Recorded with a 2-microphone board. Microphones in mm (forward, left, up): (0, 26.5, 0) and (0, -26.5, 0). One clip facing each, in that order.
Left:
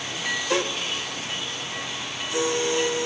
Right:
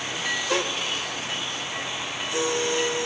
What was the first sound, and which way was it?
Only background noise.